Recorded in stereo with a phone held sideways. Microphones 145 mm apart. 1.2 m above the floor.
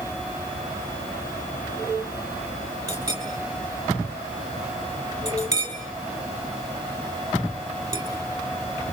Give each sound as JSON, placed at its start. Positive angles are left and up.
{"t": 2.9, "sound": "a clink", "side_deg": -20, "distance_m": 6.0}